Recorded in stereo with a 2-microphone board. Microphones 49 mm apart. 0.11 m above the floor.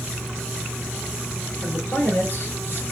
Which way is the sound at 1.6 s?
45° left (ahead or behind).